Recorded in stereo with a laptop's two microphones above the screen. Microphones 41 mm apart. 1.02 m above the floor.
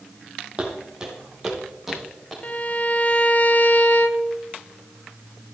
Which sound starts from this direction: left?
A violin, at 2.4 s.